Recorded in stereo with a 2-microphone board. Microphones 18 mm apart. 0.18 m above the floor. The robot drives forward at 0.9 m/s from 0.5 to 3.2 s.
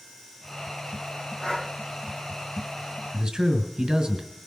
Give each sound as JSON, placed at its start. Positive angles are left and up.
{"t": 1.4, "sound": "breathing", "side_deg": 80, "distance_m": 3.5}
{"t": 3.1, "sound": "a man speaking", "side_deg": -50, "distance_m": 1.9}